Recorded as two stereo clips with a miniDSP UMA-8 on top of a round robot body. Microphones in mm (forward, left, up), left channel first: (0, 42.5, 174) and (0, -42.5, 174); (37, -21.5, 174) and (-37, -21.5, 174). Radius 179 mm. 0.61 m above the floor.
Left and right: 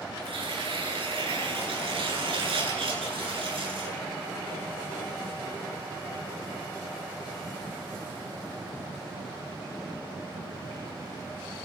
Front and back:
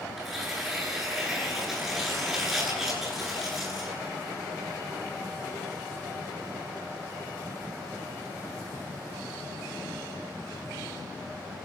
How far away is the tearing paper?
About 10 m.